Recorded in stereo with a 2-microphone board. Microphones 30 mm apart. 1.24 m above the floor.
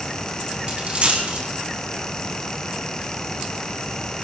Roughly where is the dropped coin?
Right.